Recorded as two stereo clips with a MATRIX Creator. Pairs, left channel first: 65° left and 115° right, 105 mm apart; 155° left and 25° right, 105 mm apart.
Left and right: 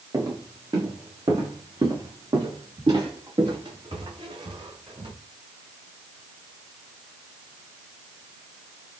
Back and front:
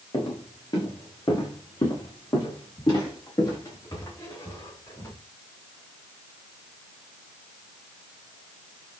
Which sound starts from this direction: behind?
Footsteps, at 0.1 s.